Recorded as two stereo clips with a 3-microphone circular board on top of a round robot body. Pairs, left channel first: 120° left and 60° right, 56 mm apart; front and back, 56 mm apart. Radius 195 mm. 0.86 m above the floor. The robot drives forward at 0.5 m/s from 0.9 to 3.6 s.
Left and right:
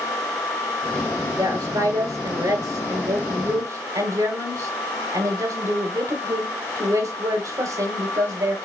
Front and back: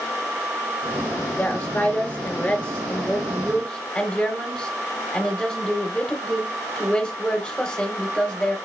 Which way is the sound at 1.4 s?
65° right.